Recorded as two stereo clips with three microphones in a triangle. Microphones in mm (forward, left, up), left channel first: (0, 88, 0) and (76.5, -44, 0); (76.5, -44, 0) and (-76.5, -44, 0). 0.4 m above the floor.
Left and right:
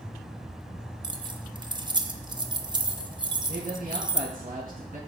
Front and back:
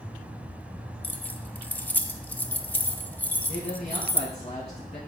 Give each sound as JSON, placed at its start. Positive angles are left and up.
{"t": 1.0, "sound": "keys jangling", "azimuth_deg": -65, "distance_m": 0.5}
{"t": 3.5, "sound": "a man speaking", "azimuth_deg": -45, "distance_m": 4.0}